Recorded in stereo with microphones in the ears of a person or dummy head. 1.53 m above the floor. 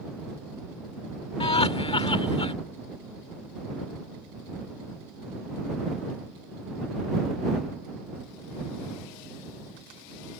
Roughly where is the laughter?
Left.